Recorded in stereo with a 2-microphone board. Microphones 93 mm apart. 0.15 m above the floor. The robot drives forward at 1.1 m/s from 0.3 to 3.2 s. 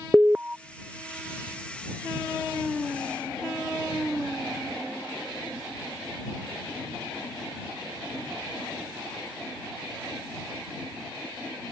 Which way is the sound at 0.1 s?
15° right (ahead or behind).